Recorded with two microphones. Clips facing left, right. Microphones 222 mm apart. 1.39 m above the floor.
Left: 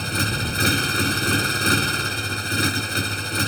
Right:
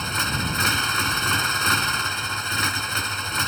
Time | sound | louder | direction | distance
0.0 | a motorcycle | left 3 dB | 35° left (ahead or behind) | ?